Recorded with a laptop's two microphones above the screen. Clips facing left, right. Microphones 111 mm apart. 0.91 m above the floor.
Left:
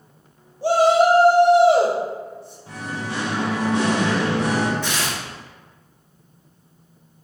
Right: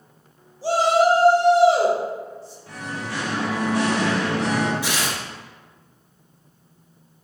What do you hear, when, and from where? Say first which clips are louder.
0.6 s a shout: left 2 dB; 55° left (ahead or behind), 1.0 m
2.7 s singing: left 2 dB; 25° left (ahead or behind), 0.8 m
4.8 s tearing paper: even; 10° right (ahead or behind), 0.9 m